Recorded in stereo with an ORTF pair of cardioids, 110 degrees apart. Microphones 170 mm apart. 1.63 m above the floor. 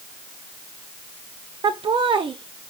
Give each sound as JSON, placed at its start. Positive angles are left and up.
{"t": 1.6, "sound": "laughter", "azimuth_deg": -30, "distance_m": 1.1}